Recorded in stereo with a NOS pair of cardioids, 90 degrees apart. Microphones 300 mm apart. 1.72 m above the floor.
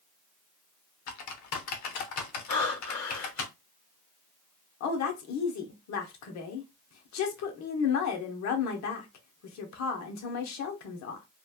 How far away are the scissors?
No scissors in this recording.